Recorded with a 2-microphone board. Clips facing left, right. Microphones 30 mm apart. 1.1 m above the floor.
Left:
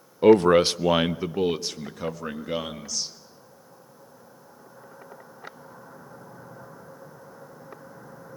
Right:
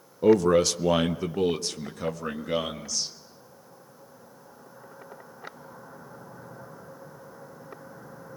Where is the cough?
I don't hear a cough.